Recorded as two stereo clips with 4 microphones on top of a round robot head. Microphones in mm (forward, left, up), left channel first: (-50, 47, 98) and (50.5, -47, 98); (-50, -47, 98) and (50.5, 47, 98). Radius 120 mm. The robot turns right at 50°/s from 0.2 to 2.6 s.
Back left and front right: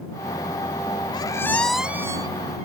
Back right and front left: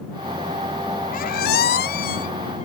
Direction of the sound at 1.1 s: 165° right.